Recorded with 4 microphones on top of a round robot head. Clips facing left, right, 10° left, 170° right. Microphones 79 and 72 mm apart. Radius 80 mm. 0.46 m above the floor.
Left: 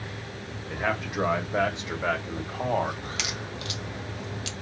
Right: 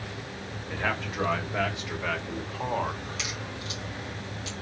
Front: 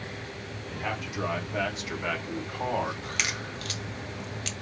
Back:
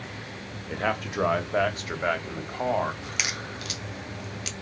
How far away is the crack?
About 1.3 m.